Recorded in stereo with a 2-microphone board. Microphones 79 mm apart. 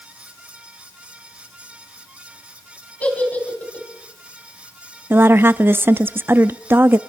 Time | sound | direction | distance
3.0 | a giggle | 20° left (ahead or behind) | 3.5 m
5.1 | a woman speaking | 25° right (ahead or behind) | 0.5 m